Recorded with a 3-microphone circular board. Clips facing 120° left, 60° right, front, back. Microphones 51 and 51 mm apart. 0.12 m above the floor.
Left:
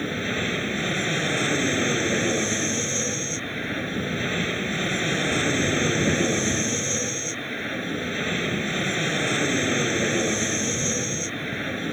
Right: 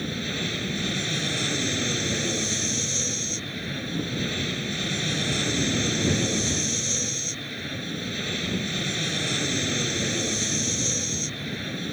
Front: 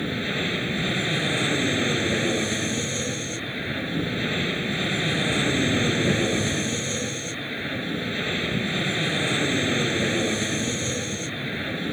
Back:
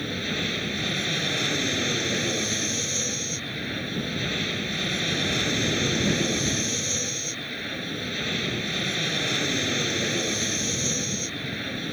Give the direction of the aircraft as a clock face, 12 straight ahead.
10 o'clock.